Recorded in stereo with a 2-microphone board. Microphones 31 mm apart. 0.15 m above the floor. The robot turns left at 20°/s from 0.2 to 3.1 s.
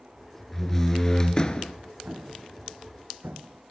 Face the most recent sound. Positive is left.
turn(degrees=-60)  # may be behind; listen again after turning